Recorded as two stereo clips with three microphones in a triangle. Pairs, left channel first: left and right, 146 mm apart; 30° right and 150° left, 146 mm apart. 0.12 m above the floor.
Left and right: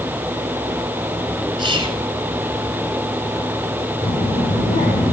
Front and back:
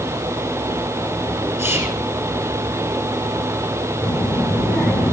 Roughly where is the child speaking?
Ahead left.